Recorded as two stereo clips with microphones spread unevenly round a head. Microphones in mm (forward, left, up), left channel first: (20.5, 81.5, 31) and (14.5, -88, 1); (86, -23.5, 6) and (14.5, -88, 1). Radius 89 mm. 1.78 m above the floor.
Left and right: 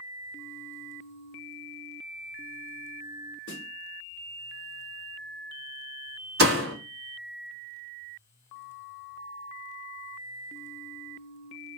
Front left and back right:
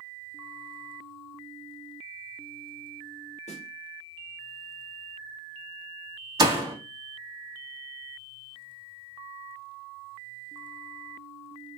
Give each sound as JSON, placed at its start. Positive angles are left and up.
{"t": 3.5, "sound": "a snare drum", "azimuth_deg": 70, "distance_m": 0.7}
{"t": 6.4, "sound": "a door slam", "azimuth_deg": -100, "distance_m": 2.0}